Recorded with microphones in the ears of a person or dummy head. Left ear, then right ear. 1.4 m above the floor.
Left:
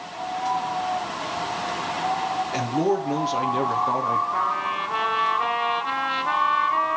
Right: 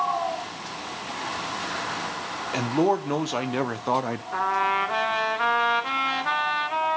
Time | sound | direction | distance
2.5 | a man speaking | 30° right (ahead or behind) | 1.4 m
4.3 | a trumpet | 70° right (ahead or behind) | 1.9 m